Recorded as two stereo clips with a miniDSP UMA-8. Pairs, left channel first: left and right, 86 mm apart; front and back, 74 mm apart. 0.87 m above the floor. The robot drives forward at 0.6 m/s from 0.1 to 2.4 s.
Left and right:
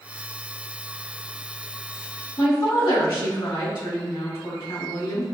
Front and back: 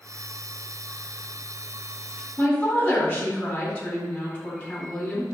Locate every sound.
2.4 s a woman speaking: 70° left, 1.9 m